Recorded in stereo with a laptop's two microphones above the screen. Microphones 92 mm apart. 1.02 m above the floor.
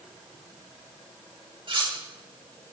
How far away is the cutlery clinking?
About 1.8 m.